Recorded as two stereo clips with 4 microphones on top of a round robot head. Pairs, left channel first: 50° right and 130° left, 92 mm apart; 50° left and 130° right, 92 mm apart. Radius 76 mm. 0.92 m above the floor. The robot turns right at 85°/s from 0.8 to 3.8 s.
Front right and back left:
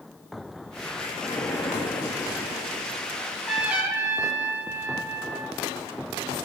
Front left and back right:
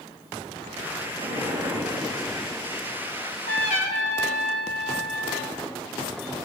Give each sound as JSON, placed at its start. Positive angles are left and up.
{"t": 1.2, "sound": "an explosion", "azimuth_deg": -140, "distance_m": 2.5}
{"t": 3.2, "sound": "a trumpet", "azimuth_deg": 10, "distance_m": 1.7}